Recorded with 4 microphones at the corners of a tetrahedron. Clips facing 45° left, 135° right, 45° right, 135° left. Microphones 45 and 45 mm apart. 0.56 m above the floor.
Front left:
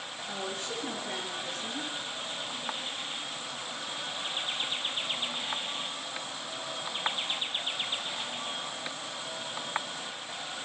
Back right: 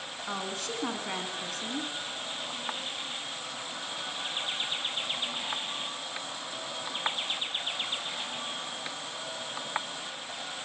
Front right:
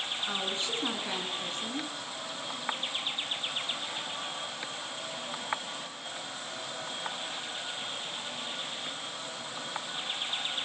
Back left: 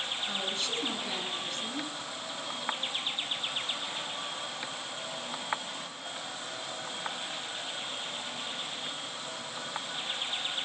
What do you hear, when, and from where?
0.3 s a woman speaking: 115° right, 5 m